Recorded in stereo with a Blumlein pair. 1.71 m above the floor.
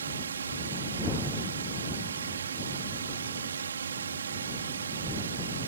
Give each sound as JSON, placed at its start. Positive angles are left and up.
{"t": 0.0, "sound": "a drone", "azimuth_deg": -65}